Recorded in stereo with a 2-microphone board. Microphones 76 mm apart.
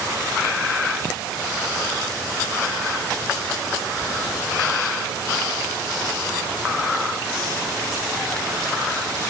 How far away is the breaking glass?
I don't hear breaking glass.